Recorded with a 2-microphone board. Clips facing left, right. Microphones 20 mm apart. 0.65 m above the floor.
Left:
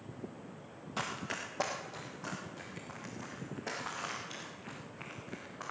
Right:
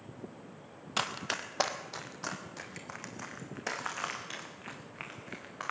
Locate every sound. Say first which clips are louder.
1.0 s running footsteps: right 4 dB; 60° right (ahead or behind), 1.2 m; by 5.7 s 65° right (ahead or behind), 4 m